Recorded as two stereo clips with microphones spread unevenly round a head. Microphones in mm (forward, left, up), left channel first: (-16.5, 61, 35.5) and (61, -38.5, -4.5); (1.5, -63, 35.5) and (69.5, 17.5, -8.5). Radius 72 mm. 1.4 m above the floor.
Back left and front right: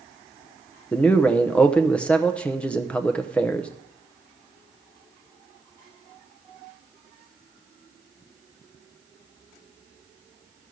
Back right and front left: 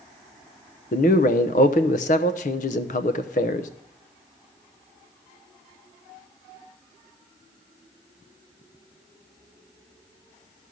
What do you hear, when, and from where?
0.9 s a man speaking: 150° right, 0.7 m